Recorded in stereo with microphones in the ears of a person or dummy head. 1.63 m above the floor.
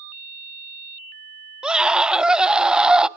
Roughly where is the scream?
Centre.